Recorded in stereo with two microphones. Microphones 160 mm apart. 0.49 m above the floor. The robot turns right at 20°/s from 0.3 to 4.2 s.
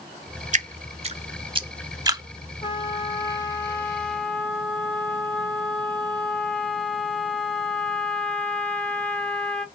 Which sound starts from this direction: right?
Dripping, at 0.5 s.